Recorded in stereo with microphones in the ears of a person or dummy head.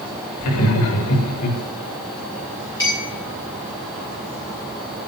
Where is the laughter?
90° left, 4 m.